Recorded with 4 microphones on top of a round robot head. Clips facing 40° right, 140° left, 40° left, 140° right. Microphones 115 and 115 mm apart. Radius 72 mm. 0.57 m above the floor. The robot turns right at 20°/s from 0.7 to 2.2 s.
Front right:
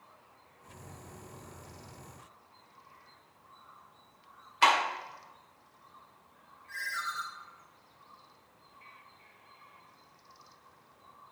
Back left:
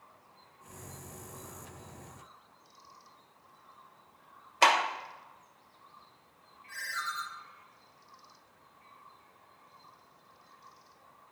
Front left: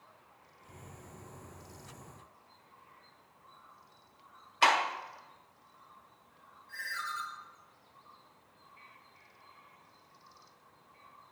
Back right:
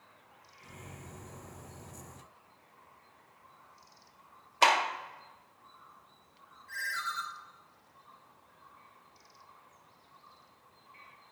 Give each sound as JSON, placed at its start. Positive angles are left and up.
{"t": 4.6, "sound": "a clap", "azimuth_deg": 180, "distance_m": 2.0}
{"t": 6.7, "sound": "a ringtone", "azimuth_deg": -135, "distance_m": 3.5}